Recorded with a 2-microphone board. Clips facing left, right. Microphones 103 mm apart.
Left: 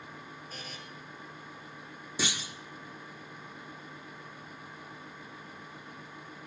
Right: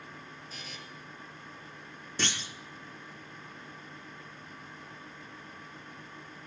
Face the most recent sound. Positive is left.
turn(degrees=10)  # may be behind; listen again after turning